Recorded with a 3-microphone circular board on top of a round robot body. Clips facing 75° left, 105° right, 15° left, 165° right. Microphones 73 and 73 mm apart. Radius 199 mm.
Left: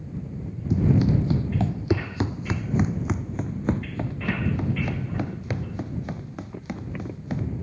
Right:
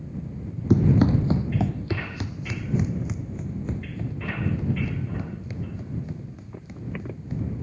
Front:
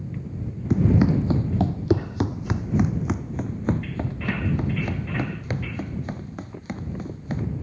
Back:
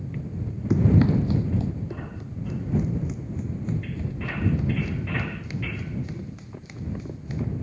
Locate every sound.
0.7 s running footsteps: 80° right; by 7.5 s 55° left